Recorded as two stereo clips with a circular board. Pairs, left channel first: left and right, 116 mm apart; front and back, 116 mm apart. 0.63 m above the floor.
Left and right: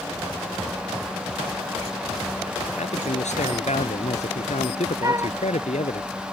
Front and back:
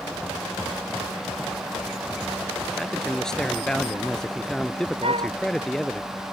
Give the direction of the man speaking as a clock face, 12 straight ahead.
9 o'clock.